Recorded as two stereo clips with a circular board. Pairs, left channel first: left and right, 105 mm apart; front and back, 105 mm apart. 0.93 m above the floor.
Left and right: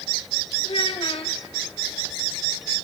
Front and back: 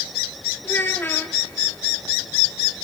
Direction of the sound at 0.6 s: 65° left.